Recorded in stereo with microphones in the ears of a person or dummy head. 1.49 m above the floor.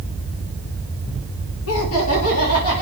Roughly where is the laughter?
Left.